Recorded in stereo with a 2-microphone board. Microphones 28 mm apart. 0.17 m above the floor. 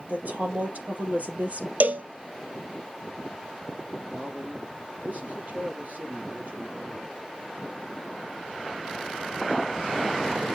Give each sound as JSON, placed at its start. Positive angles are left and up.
{"t": 0.1, "sound": "a woman speaking", "side_deg": -70, "distance_m": 4.5}
{"t": 1.8, "sound": "a cowbell", "side_deg": -75, "distance_m": 0.7}
{"t": 4.1, "sound": "a man speaking", "side_deg": -70, "distance_m": 5.0}